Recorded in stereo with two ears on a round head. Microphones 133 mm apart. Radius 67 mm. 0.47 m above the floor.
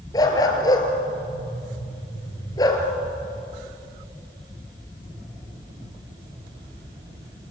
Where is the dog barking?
25° left (ahead or behind), 3 m.